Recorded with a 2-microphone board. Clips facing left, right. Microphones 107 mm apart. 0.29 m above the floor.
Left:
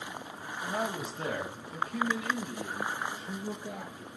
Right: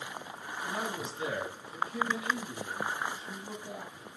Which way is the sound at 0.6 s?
45° left (ahead or behind).